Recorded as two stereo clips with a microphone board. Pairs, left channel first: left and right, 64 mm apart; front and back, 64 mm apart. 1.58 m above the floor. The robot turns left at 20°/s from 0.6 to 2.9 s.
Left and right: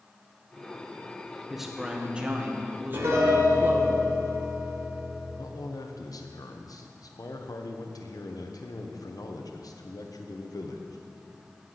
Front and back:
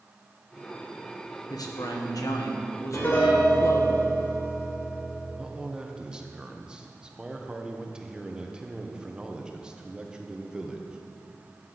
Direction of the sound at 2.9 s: 50° right.